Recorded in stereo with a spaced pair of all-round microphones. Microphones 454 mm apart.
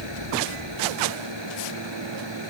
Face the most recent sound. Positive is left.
turn(degrees=-70)  # may be behind; listen again after turning